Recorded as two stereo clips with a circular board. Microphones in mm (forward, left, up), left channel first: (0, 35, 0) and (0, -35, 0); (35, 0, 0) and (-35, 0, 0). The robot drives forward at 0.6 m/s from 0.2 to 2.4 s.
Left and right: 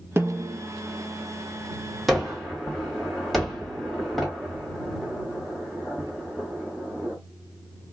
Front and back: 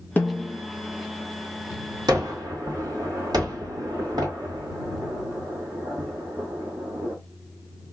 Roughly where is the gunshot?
Behind.